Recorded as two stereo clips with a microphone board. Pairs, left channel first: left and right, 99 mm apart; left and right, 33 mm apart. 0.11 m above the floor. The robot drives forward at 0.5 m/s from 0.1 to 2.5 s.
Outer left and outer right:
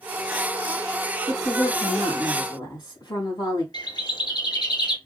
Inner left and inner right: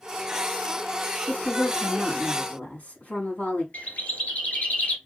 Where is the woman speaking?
50° left (ahead or behind), 3.5 m; by 3.6 s 40° left (ahead or behind), 3.5 m.